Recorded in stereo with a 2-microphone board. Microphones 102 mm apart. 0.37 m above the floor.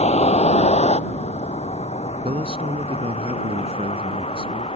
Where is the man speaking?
70° right (ahead or behind).